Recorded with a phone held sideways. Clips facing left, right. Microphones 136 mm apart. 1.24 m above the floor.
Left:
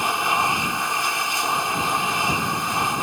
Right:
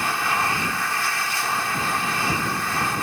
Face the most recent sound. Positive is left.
turn(degrees=20)  # may be behind; listen again after turning